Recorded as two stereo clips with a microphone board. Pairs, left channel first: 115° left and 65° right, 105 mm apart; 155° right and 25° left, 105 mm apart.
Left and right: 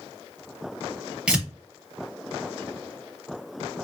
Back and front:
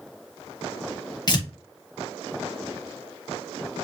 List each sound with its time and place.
1.3 s tearing paper: 145° right, 1.1 m